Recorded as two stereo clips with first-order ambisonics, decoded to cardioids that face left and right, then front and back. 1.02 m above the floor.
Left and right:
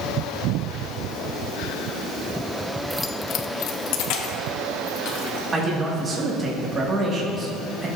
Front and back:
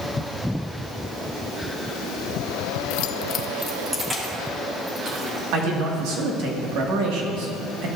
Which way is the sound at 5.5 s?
160° right.